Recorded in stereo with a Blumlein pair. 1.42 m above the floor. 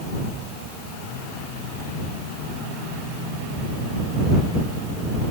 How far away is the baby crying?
No baby crying in this recording.